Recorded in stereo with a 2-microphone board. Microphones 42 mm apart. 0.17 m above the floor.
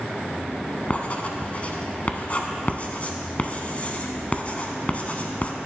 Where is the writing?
35° left (ahead or behind), 0.8 m.